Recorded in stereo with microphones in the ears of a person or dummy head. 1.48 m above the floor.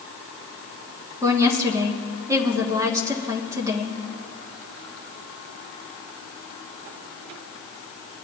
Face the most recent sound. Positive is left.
turn(degrees=-20)  # may be behind; listen again after turning